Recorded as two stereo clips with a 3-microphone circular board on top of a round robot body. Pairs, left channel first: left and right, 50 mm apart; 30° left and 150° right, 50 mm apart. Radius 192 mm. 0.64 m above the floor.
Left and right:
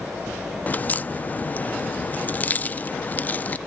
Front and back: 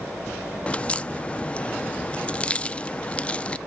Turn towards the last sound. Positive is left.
turn(degrees=75)